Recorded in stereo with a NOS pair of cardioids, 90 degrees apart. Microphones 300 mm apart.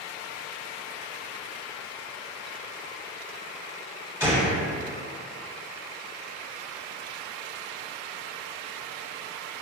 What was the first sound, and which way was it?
A gunshot, 5° right.